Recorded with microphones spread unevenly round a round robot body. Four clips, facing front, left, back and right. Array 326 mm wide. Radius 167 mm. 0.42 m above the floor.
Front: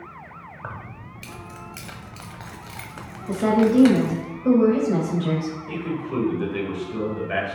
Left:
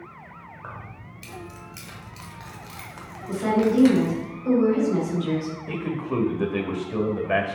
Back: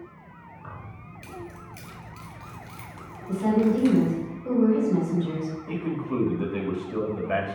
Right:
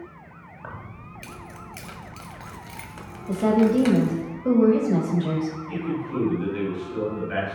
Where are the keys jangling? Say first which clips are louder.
Right 2 dB, front 6 dB; 15° right, 1.8 m.